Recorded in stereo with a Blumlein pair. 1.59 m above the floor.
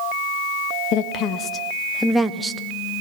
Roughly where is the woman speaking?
Ahead left.